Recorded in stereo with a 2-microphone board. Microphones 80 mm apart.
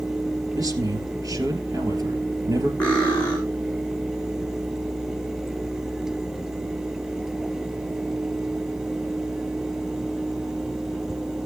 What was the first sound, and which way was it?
A man speaking, 50° right (ahead or behind).